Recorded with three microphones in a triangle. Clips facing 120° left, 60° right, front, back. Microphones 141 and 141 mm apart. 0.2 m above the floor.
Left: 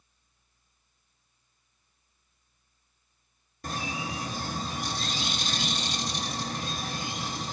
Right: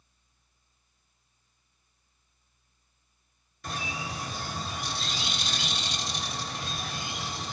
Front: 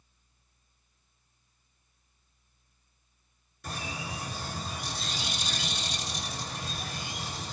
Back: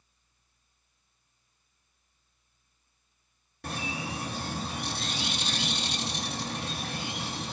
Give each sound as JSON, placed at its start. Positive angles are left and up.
{"t": 3.6, "sound": "a bird", "azimuth_deg": 160, "distance_m": 0.6}